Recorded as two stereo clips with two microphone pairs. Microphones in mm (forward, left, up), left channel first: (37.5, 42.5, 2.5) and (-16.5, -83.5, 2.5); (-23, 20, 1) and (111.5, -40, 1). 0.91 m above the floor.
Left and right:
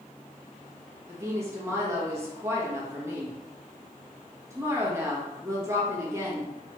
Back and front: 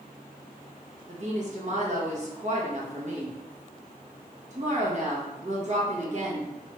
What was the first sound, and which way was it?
A woman speaking, 45° right.